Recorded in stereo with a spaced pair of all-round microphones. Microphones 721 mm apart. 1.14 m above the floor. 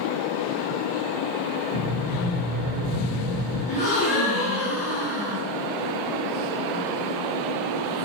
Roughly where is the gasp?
Centre.